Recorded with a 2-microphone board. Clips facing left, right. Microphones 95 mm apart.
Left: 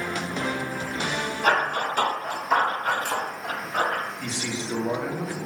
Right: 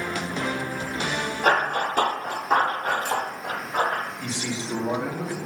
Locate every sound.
1.4 s running footsteps: 40° right (ahead or behind), 1.0 m; by 4.0 s 20° right (ahead or behind), 1.7 m
4.2 s a man speaking: 25° right (ahead or behind), 1.1 m